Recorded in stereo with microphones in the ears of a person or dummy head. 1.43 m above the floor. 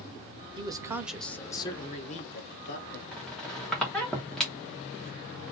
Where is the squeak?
Centre (ahead or behind), 1.1 m.